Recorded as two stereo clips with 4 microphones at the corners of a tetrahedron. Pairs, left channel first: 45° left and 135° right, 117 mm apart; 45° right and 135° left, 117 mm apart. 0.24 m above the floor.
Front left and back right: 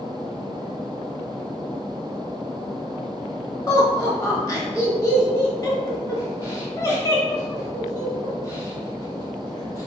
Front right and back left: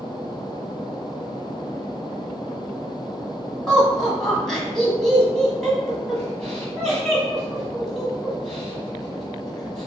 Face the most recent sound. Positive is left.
turn(degrees=35)